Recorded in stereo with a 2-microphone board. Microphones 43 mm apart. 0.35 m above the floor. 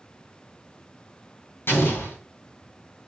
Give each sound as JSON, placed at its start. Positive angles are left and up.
{"t": 1.7, "sound": "an explosion", "side_deg": 70, "distance_m": 3.0}